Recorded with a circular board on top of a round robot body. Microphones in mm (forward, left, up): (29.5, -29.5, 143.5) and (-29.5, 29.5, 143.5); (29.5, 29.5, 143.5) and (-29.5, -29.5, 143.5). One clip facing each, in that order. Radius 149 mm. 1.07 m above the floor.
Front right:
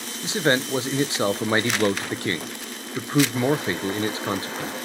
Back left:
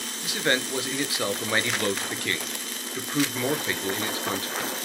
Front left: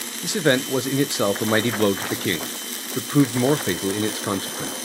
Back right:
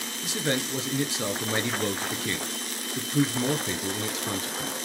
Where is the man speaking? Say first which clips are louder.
Front right 4 dB, front left 9 dB; 15° left, 0.7 m.